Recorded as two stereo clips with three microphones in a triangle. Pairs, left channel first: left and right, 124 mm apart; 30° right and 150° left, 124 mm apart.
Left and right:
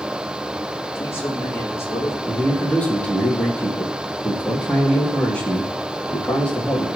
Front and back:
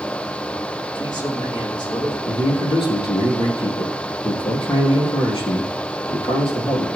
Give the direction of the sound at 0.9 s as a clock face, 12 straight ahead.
11 o'clock.